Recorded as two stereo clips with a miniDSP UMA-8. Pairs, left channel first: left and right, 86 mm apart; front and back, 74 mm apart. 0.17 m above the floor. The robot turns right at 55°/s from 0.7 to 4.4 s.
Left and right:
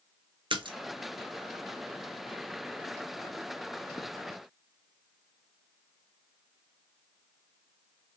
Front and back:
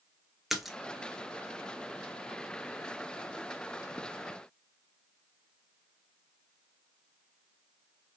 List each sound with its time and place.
0.5 s a splash: 90° right, 0.8 m; by 0.8 s 85° right, 0.8 m